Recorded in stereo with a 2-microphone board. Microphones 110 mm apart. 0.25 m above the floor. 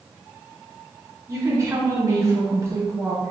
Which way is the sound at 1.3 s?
30° right (ahead or behind).